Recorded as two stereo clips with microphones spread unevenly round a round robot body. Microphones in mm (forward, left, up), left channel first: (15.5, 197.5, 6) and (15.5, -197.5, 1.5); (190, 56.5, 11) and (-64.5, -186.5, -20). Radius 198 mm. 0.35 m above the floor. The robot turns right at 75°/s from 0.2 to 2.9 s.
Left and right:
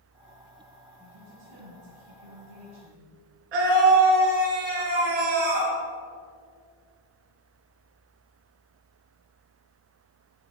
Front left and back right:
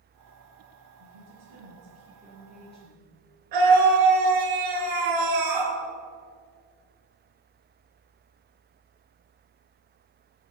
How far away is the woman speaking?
About 3.5 m.